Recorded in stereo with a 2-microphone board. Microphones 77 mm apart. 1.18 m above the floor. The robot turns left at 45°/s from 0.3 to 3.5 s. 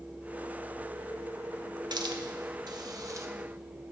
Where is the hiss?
65° right (ahead or behind), 0.9 m; by 3.3 s 40° right (ahead or behind), 0.9 m.